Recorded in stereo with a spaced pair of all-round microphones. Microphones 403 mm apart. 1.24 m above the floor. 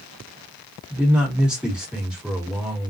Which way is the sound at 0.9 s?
Centre (ahead or behind).